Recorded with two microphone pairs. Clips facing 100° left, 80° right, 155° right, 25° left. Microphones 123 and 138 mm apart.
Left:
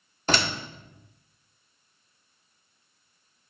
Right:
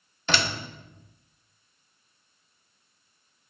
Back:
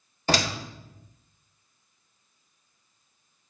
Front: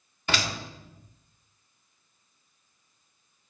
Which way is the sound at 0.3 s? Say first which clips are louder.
Left 2 dB, back 5 dB; 150° left.